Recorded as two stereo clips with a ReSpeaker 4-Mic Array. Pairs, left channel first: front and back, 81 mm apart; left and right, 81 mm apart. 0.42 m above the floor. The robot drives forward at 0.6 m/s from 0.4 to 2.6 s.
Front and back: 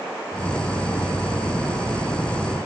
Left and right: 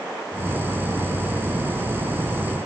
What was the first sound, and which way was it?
Only background noise.